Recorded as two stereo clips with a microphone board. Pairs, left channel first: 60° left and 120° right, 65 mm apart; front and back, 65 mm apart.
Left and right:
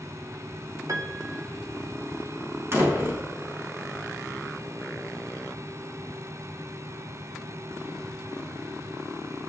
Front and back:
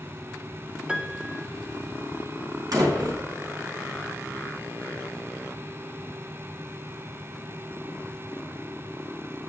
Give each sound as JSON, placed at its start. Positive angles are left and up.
{"t": 0.9, "sound": "a piano", "azimuth_deg": -105, "distance_m": 1.8}
{"t": 2.7, "sound": "a door slam", "azimuth_deg": -170, "distance_m": 4.5}